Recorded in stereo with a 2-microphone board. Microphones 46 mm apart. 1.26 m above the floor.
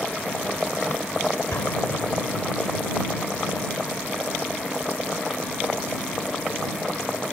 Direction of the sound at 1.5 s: 75° left (ahead or behind).